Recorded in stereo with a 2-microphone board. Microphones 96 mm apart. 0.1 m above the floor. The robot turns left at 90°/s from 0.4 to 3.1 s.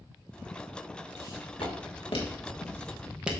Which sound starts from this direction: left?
Footsteps, at 1.2 s.